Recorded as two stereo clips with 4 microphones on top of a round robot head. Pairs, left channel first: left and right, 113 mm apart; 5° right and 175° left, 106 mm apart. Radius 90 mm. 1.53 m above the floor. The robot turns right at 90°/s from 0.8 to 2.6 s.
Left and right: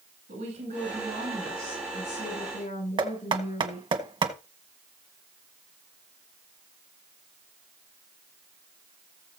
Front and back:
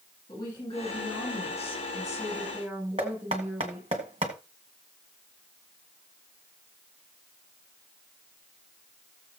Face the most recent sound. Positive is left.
turn(degrees=-130)